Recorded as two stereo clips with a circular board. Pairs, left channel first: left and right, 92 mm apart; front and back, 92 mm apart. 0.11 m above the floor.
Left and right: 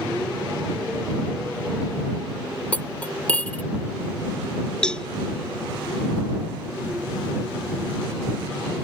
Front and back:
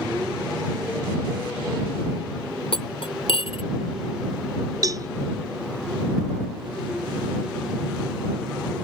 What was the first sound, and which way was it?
Cutlery clinking, 15° left.